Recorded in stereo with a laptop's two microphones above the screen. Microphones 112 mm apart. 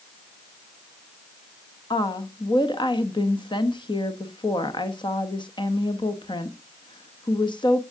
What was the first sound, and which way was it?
A woman speaking, 45° left (ahead or behind).